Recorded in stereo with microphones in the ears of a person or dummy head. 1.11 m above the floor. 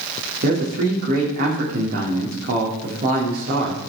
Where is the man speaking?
50° right (ahead or behind), 2 m.